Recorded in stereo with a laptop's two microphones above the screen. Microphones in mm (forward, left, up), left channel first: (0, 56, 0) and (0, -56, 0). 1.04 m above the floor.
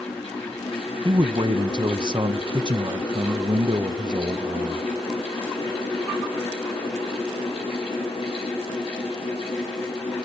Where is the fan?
65° left (ahead or behind), 10 m.